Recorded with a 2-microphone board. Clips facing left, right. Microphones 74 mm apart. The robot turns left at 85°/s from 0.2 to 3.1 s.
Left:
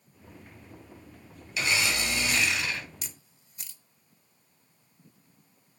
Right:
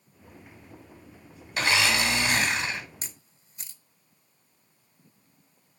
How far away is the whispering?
I don't hear whispering.